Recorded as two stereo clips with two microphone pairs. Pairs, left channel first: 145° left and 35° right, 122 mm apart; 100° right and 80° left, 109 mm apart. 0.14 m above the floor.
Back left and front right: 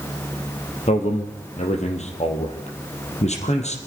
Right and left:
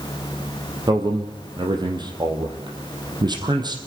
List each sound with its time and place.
0.9 s a man speaking: 125° left, 3.5 m